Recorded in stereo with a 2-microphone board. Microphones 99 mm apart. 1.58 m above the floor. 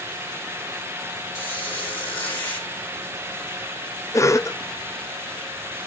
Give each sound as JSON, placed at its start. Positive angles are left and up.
{"t": 1.4, "sound": "a squeak", "side_deg": 20, "distance_m": 4.5}
{"t": 4.1, "sound": "a cough", "side_deg": 30, "distance_m": 0.6}